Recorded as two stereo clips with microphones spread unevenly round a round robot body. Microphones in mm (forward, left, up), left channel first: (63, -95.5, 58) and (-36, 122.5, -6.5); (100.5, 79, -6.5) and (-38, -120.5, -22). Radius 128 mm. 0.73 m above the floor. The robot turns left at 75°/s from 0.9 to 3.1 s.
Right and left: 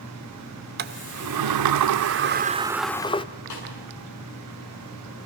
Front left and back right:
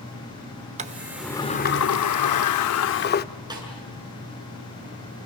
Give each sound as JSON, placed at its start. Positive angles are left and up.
{"t": 0.8, "sound": "a sliding door", "azimuth_deg": 170, "distance_m": 0.8}
{"t": 3.5, "sound": "a snare drum", "azimuth_deg": -50, "distance_m": 8.0}